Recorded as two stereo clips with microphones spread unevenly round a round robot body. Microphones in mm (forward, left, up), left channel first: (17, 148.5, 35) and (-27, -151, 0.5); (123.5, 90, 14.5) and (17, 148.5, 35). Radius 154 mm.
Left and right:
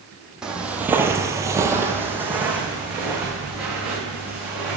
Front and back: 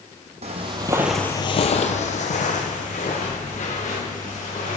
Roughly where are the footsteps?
Behind.